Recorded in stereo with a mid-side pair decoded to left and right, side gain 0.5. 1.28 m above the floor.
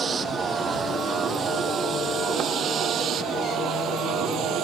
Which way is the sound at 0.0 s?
45° right.